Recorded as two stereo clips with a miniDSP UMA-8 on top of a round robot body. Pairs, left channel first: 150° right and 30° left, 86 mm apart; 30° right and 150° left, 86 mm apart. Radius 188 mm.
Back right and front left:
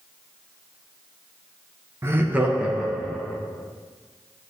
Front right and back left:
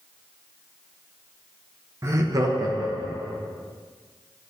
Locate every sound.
2.0 s laughter: 90° left, 0.9 m; by 3.4 s 125° left, 1.6 m